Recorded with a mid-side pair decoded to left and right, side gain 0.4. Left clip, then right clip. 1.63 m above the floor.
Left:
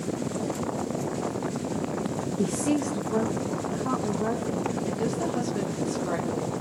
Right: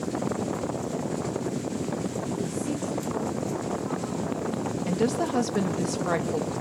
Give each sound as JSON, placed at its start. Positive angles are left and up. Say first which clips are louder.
{"t": 2.4, "sound": "a woman speaking", "louder": "left 4 dB", "azimuth_deg": 60, "distance_m": 0.8}
{"t": 4.9, "sound": "a woman speaking", "louder": "right 2 dB", "azimuth_deg": -60, "distance_m": 3.0}